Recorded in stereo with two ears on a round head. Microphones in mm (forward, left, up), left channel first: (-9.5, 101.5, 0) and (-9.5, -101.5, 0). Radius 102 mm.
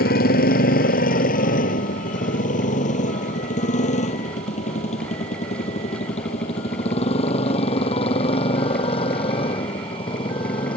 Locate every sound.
0.0 s a motorcycle: 40° left (ahead or behind); by 10.8 s 25° left (ahead or behind)